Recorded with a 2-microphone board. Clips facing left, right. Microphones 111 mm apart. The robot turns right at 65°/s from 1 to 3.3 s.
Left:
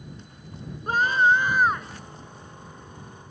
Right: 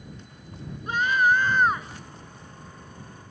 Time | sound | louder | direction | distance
0.9 | a scream | left 2 dB | 135° left | ?